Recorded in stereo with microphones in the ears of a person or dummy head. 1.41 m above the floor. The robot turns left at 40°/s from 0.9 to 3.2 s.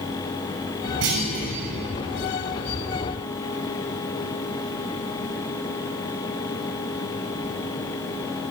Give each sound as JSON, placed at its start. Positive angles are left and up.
{"t": 1.0, "sound": "a clunk", "side_deg": -85, "distance_m": 6.0}